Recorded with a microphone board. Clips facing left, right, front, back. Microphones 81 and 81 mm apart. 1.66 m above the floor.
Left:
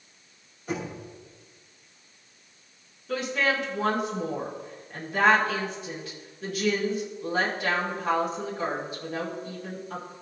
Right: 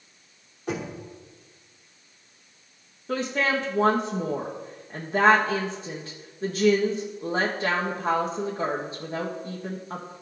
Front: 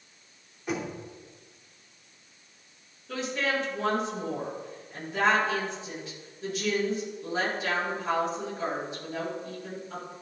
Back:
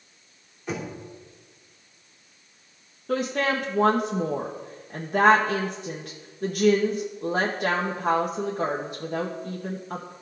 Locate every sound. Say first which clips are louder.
0.7 s knocking: right 1 dB, even; 85° right, 3 m
3.1 s a woman speaking: right 1 dB, back 5 dB; 145° right, 1.1 m